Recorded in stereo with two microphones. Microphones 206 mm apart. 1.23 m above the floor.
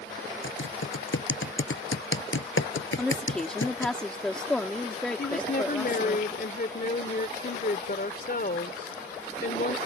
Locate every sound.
0.4 s typing on a keyboard: 80° left
3.0 s a woman speaking: 5° left (ahead or behind)
5.2 s a woman speaking: 50° left (ahead or behind)